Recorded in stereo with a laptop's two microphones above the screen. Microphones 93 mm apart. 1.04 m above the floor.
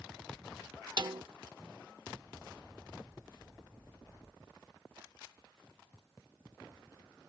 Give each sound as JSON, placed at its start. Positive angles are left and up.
{"t": 1.0, "sound": "a snare drum", "side_deg": -55}